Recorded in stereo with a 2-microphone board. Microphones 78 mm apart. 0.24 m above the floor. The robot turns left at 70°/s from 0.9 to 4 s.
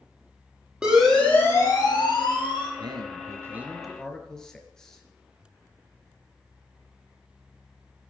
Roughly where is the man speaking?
Right.